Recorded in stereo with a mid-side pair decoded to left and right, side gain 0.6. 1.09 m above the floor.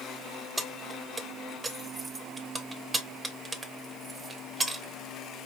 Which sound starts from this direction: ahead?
Keys jangling, at 0.6 s.